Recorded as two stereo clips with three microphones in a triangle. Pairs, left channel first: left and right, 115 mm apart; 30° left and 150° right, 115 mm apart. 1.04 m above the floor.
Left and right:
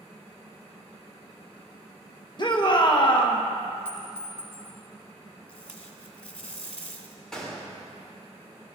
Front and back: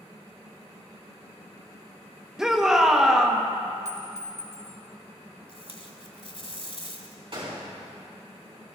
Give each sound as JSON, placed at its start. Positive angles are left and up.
{"t": 2.4, "sound": "a shout", "azimuth_deg": 125, "distance_m": 1.2}
{"t": 3.9, "sound": "a clink", "azimuth_deg": 20, "distance_m": 3.5}
{"t": 5.5, "sound": "tape being pulled", "azimuth_deg": 10, "distance_m": 1.5}
{"t": 7.3, "sound": "a gunshot", "azimuth_deg": 175, "distance_m": 3.0}